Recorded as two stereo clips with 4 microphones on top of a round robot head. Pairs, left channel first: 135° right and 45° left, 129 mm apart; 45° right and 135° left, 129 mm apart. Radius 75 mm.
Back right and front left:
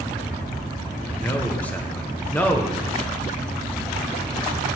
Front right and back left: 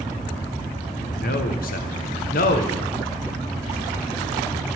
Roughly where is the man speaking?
Ahead right.